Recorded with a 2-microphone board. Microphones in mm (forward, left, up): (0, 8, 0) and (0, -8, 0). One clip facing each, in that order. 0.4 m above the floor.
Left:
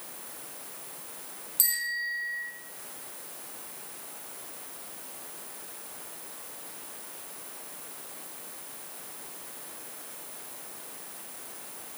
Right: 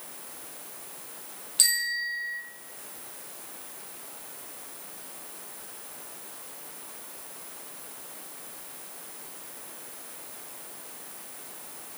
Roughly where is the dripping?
I don't hear dripping.